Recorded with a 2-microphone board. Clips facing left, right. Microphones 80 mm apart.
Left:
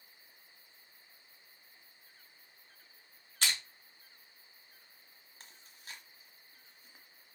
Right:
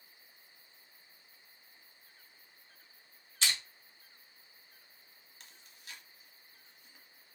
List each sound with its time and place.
3.4 s crushing: 50° left (ahead or behind), 1.5 m
5.4 s chewing: 35° left (ahead or behind), 0.8 m